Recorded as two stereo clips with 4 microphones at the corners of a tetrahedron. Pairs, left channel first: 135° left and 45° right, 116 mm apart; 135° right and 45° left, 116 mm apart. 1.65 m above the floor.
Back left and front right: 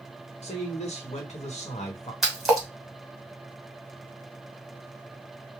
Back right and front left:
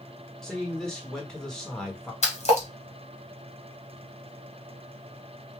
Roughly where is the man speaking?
Behind left.